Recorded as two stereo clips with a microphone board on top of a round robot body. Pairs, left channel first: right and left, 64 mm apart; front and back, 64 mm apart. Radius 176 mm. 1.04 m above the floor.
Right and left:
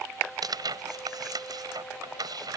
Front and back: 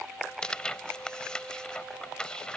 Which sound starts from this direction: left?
Tearing paper, at 0.4 s.